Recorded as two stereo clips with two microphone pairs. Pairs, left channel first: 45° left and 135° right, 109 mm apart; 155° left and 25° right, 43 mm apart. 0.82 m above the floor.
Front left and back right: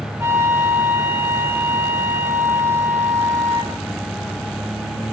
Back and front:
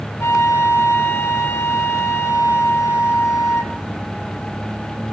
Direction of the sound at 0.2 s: 155° left.